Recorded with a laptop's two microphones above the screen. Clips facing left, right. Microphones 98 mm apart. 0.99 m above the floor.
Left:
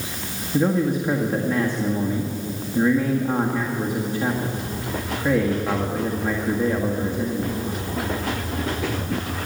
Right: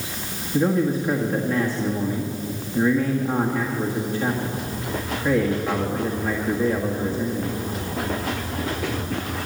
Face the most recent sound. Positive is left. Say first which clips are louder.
# even
turn(degrees=15)  # may be behind; listen again after turning